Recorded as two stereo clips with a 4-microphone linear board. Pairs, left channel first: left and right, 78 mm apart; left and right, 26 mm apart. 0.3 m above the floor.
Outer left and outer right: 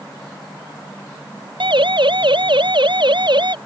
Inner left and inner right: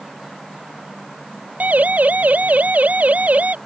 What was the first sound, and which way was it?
A siren, 85° right.